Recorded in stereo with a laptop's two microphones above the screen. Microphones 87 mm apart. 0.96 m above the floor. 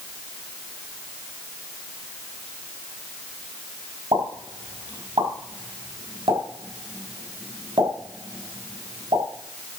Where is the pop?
70° right (ahead or behind), 4.5 m.